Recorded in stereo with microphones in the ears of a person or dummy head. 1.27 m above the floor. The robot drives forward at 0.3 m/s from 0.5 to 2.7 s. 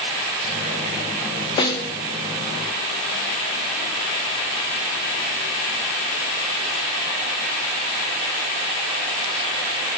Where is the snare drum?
25° left (ahead or behind), 0.6 m; by 1.9 s 20° left (ahead or behind), 0.7 m.